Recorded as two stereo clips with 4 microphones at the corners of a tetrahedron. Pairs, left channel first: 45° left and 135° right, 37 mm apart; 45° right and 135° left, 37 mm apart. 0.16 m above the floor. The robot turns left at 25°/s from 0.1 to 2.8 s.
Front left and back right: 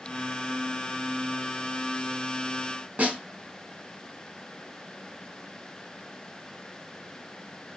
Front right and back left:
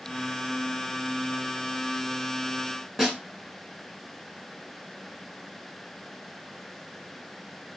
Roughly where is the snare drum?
Behind right.